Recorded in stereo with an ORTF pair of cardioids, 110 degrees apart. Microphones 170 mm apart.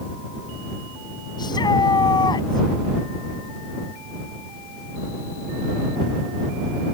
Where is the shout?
25° left.